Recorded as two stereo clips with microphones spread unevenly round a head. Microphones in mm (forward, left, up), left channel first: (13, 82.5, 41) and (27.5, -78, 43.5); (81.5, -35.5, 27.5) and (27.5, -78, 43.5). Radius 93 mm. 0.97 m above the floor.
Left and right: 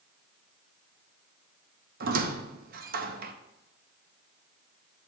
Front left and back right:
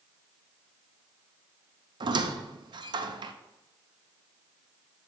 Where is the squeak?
125° right, 0.7 m.